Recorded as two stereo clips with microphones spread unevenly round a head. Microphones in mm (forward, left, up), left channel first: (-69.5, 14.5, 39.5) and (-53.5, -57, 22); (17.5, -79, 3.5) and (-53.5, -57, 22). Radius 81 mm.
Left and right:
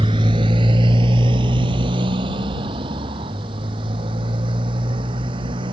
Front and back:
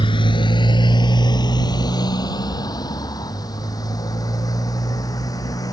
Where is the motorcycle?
25° right; by 5.7 s 55° right.